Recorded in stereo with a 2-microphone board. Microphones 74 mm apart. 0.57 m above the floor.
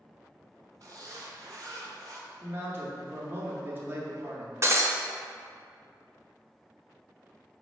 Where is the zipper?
50° right (ahead or behind), 1.4 m.